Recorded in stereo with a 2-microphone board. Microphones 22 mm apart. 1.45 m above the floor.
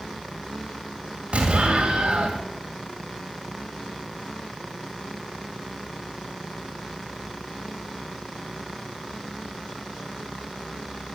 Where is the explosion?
65° right (ahead or behind), 2.5 m.